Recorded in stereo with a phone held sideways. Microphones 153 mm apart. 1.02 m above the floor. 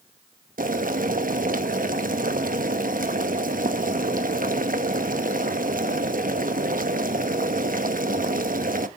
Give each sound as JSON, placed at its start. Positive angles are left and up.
{"t": 0.6, "sound": "boiling", "side_deg": -65, "distance_m": 1.0}